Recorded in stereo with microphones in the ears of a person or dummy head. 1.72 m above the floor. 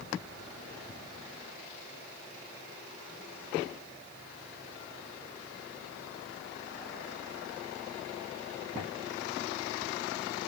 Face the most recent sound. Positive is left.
No sound to turn to.